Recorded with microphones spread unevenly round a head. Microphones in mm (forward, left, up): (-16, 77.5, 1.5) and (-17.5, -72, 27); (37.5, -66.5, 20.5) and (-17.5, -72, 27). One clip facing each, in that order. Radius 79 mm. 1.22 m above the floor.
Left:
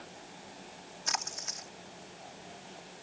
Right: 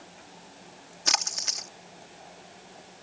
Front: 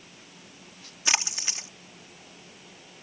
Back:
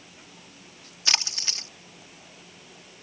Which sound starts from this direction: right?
A splash, at 1.1 s.